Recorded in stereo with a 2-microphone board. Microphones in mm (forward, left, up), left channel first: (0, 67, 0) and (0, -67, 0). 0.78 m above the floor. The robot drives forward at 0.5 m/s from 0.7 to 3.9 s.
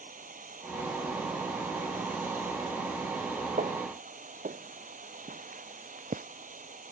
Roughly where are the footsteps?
Right.